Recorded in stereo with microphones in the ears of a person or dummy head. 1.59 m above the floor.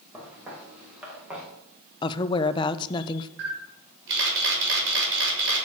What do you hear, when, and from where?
0.1 s footsteps: 5° right (ahead or behind), 8 m
2.0 s a woman speaking: 25° left (ahead or behind), 0.8 m
3.4 s a camera shutter: 70° right (ahead or behind), 5 m